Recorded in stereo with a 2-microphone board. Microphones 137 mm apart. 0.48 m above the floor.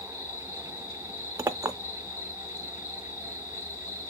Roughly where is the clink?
Right.